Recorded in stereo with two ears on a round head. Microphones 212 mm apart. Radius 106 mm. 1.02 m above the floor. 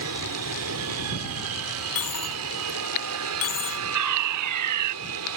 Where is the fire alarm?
80° right.